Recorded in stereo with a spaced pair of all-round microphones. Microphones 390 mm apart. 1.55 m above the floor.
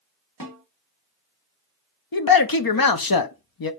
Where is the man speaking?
70° left (ahead or behind), 0.5 m.